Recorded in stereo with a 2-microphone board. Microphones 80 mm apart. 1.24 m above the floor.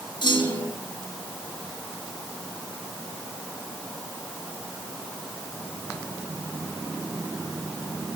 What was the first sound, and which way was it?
A clunk, 70° left (ahead or behind).